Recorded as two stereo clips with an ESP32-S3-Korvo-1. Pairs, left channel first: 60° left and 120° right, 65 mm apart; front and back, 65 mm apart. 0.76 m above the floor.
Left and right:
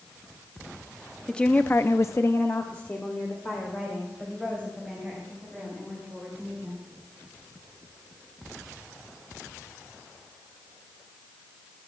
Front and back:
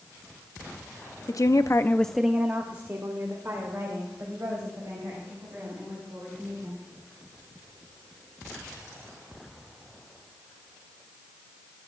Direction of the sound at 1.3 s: 15° right.